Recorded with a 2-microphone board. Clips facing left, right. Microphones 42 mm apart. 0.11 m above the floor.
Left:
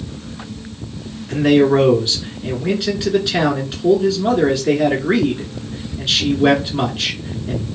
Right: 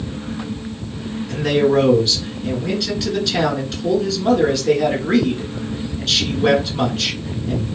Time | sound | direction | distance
1.3 | a man speaking | 20° left (ahead or behind) | 1.1 m